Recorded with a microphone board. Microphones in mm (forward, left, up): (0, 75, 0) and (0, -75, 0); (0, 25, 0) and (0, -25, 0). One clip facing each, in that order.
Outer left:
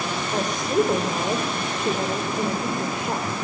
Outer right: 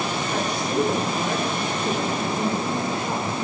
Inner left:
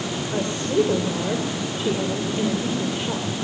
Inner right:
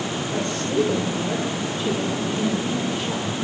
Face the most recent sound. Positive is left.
turn(degrees=20)  # may be behind; listen again after turning